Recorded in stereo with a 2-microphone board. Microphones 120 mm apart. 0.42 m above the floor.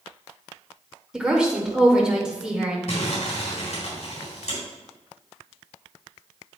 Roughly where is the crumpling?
Left.